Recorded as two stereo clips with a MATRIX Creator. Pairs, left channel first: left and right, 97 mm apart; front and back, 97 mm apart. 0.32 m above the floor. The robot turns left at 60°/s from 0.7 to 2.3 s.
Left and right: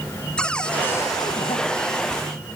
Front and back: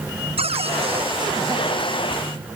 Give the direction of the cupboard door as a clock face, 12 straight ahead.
6 o'clock.